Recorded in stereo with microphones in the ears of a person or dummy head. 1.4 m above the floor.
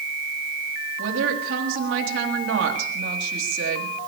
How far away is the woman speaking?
About 3.5 m.